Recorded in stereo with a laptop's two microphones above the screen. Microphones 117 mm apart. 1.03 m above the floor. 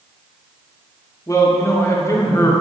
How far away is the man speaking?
About 0.6 m.